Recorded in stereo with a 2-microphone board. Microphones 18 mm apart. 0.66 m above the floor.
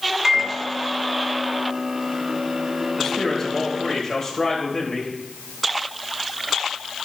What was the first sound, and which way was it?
A microwave, 25° right (ahead or behind).